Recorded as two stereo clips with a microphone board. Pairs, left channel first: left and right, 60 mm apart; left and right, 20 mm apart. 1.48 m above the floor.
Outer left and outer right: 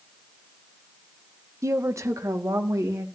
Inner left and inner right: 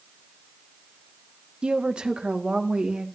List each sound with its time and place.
1.6 s a woman speaking: 55° right (ahead or behind), 1.5 m; by 3.1 s 60° right (ahead or behind), 3 m